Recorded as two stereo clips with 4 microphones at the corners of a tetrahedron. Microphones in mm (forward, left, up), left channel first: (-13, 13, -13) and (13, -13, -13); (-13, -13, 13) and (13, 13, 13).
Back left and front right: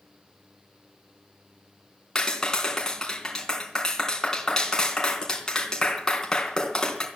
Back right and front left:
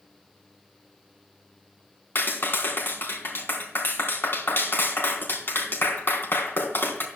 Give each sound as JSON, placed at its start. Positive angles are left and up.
{"t": 2.1, "sound": "a clap", "azimuth_deg": -150, "distance_m": 3.5}